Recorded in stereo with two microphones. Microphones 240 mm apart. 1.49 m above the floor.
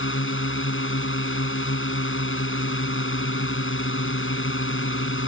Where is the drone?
55° left (ahead or behind).